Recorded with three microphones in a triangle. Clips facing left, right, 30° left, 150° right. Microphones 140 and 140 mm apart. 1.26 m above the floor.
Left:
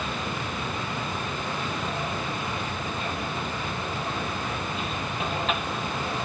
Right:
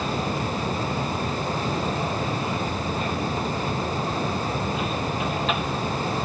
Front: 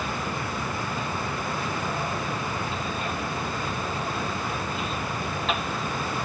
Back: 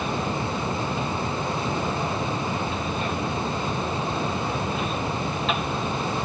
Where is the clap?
No clap in this recording.